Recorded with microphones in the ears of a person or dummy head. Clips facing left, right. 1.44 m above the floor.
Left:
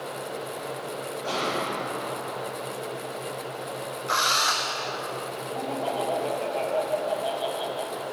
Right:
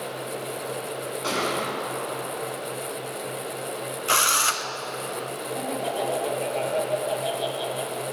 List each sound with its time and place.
1.2 s a gunshot: 80° right, 6 m
4.1 s a drill: 40° right (ahead or behind), 0.8 m
5.5 s laughter: 15° right (ahead or behind), 1.9 m